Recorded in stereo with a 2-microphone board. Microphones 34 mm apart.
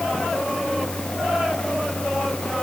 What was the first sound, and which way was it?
Only background noise.